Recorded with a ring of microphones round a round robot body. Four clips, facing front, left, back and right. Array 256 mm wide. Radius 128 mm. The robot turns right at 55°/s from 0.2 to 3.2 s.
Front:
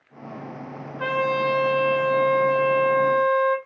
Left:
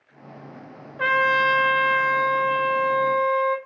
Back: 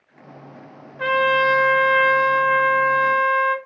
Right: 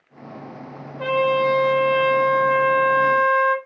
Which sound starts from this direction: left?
A trumpet, at 1.0 s.